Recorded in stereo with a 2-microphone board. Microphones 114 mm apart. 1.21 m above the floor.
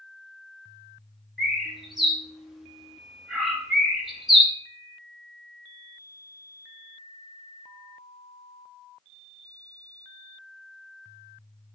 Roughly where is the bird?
Centre.